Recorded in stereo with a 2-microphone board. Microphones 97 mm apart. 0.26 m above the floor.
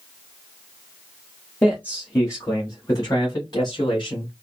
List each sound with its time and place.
1.6 s a man speaking: 15° left (ahead or behind), 1.4 m; by 4.3 s 55° left (ahead or behind), 2 m